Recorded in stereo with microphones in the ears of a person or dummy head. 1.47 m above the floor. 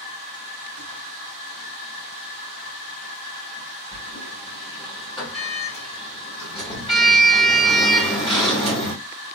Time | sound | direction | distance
0.0 | a machine running | 60° left (ahead or behind) | 1.4 m
3.9 | a sliding door | 25° left (ahead or behind) | 1.5 m